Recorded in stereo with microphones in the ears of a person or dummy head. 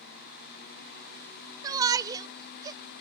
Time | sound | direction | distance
1.6 | a shout | 20° right (ahead or behind) | 0.6 m